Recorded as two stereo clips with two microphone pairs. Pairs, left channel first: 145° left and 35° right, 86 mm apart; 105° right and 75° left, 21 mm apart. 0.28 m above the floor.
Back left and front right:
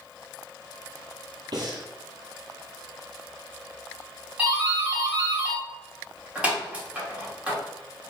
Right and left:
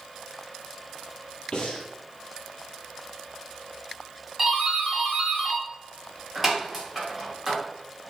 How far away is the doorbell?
About 1.7 m.